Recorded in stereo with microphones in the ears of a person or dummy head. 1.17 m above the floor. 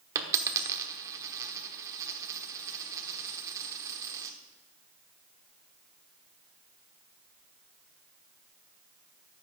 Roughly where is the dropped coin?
Centre.